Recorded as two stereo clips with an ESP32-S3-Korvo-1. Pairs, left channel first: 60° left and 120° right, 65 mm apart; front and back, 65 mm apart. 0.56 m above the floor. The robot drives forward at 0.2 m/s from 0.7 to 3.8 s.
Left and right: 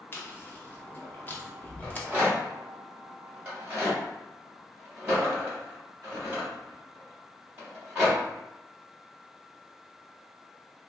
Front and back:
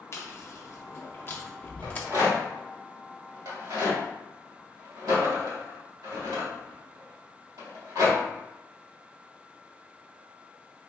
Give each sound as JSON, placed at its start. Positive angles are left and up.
{"t": 0.1, "sound": "chewing", "azimuth_deg": 15, "distance_m": 0.7}
{"t": 1.8, "sound": "a rattle", "azimuth_deg": 175, "distance_m": 1.5}